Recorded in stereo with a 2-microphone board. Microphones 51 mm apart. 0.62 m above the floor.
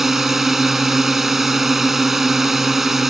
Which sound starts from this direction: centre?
A drone, at 0.0 s.